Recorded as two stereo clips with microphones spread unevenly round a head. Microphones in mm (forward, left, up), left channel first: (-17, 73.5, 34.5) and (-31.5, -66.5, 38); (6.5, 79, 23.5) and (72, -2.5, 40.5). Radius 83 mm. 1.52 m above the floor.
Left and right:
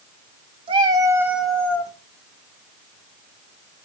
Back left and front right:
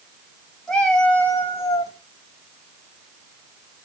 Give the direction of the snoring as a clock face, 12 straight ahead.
No snoring in this recording.